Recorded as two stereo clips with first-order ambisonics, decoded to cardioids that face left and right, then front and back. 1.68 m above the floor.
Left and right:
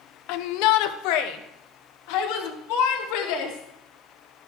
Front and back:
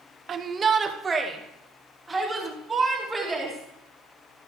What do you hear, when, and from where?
0.3 s a shout: 115° left, 0.8 m; by 4.5 s 95° left, 4 m